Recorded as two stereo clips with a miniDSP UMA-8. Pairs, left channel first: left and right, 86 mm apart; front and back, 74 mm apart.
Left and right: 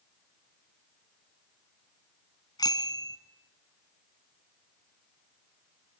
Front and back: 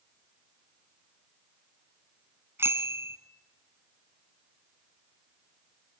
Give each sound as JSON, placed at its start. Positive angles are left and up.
{"t": 2.6, "sound": "a bicycle bell", "azimuth_deg": 125, "distance_m": 2.0}